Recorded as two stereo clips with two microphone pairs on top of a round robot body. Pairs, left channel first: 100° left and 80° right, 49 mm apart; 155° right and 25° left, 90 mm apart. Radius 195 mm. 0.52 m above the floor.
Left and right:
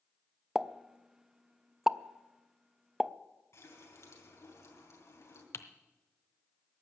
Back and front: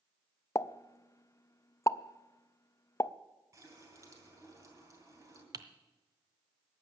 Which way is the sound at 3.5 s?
80° left.